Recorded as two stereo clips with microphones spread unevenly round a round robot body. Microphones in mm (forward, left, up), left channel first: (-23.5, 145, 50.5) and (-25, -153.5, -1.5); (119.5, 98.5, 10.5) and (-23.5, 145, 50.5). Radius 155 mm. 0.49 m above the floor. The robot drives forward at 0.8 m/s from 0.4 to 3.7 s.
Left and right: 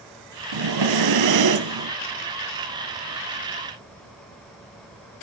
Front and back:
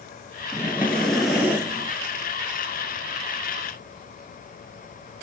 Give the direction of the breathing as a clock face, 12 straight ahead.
3 o'clock.